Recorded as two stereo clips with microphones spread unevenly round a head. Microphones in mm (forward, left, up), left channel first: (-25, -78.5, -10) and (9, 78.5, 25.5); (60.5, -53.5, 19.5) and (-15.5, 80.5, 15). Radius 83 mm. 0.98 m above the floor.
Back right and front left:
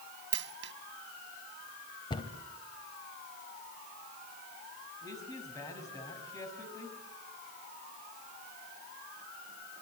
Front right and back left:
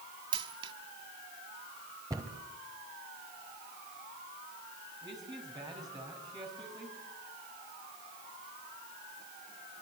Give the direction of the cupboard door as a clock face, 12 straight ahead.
6 o'clock.